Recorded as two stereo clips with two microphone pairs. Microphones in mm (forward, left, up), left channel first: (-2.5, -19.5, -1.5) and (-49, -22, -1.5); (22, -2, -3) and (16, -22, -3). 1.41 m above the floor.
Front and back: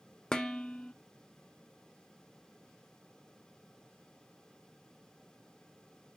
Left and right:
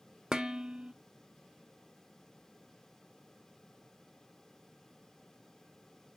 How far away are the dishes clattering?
About 0.5 m.